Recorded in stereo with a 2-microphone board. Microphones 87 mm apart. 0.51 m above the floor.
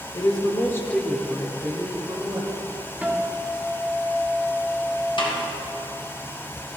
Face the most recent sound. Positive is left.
turn(degrees=70)  # may be behind; listen again after turning